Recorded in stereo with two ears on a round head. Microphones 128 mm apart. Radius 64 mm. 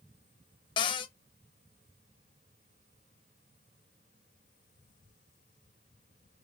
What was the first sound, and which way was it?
A cupboard door, 35° left (ahead or behind).